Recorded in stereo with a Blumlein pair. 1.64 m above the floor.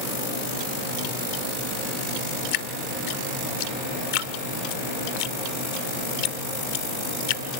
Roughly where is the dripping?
Ahead left.